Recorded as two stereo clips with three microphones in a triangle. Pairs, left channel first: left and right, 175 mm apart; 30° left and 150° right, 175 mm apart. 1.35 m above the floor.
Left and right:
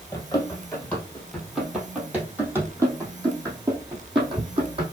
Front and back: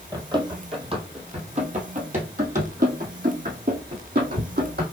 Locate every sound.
0.1 s running footsteps: 155° left, 1.9 m; by 4.8 s 145° right, 3 m